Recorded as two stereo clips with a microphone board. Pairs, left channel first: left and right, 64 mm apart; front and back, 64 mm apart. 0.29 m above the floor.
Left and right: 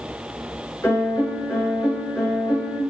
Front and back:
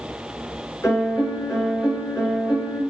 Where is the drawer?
I don't hear a drawer.